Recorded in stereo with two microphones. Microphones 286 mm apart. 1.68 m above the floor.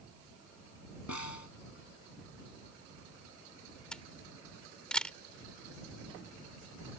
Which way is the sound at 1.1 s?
80° left.